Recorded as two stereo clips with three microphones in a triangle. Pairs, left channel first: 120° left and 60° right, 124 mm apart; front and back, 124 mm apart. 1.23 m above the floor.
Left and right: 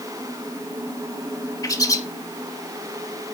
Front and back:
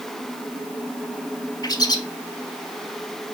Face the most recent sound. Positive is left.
turn(degrees=55)